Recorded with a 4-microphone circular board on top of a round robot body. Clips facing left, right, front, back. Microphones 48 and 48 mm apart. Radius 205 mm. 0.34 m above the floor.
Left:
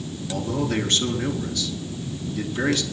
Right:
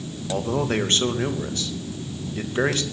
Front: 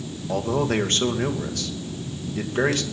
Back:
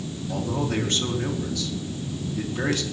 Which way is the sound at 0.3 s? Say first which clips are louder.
Right 2 dB, front 4 dB; 35° right.